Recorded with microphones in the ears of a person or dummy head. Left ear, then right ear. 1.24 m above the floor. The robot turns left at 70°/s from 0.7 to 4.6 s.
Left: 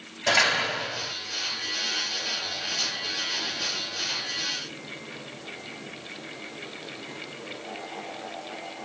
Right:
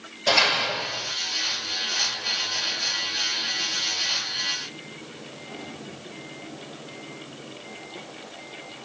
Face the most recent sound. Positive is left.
turn(degrees=-115)